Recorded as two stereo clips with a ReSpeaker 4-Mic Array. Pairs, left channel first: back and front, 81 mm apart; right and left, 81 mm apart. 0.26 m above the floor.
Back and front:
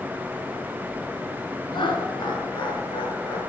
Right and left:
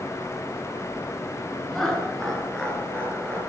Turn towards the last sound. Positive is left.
turn(degrees=-165)